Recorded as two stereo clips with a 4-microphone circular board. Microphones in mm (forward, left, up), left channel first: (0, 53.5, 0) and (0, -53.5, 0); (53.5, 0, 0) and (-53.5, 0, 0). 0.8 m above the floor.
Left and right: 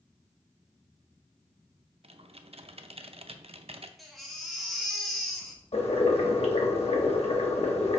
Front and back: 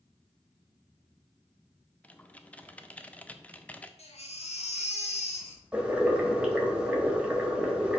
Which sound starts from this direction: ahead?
A baby crying, at 4.0 s.